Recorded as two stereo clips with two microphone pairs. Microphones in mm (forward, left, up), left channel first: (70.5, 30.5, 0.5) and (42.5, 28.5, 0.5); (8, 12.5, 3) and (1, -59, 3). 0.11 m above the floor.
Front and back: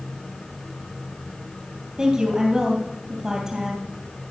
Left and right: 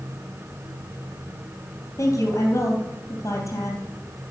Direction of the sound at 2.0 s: 120° left.